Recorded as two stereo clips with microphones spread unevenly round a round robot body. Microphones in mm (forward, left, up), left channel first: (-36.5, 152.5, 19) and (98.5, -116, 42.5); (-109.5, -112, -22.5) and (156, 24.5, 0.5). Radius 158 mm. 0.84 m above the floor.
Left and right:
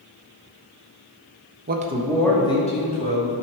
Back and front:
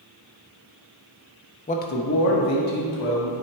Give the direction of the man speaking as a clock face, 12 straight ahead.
4 o'clock.